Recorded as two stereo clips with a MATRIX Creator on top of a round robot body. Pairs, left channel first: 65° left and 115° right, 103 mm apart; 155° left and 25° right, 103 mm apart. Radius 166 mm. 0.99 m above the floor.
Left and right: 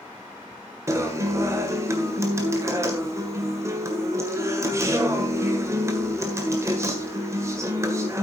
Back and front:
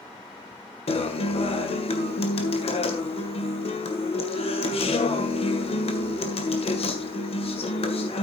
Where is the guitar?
175° right, 1.7 m.